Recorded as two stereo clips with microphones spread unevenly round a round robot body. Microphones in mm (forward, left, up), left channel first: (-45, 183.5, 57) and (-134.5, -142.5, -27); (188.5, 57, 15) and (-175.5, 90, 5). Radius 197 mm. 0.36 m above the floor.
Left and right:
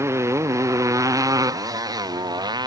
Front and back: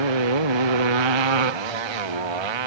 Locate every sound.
0.0 s a motorcycle: 170° left; by 2.7 s 175° left